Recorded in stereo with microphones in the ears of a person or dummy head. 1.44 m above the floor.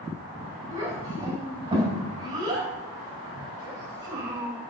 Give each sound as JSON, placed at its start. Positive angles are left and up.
{"t": 0.7, "sound": "a child speaking", "side_deg": -25, "distance_m": 5.5}